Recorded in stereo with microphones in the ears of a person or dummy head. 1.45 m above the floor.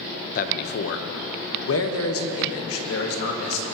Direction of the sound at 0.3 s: 50° left (ahead or behind).